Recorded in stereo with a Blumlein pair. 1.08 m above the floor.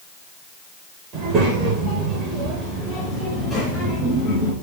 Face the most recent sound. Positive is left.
turn(degrees=15)